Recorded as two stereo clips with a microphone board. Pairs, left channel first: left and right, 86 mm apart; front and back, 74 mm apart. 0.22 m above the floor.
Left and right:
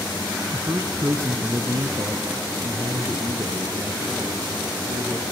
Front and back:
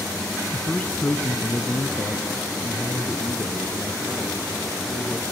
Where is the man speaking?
80° right, 1.1 m; by 5.2 s 40° right, 7 m.